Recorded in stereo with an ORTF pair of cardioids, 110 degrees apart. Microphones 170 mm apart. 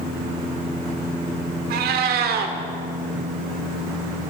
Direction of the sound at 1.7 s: 70° right.